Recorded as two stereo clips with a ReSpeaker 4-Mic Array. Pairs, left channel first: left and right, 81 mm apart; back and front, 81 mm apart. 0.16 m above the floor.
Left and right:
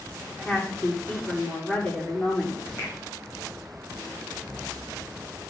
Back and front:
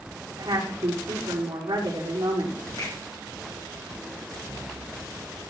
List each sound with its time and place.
0.3 s a woman speaking: 5° left, 9.5 m
2.8 s a finger snap: 150° left, 7.5 m